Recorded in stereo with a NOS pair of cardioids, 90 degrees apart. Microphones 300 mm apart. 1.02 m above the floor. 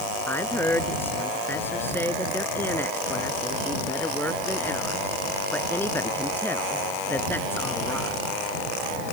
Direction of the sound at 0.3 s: 5° left.